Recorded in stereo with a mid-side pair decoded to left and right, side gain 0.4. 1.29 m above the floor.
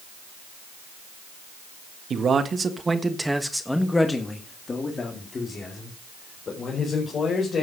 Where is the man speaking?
55° right, 1.7 m; by 7.6 s 55° left, 5 m.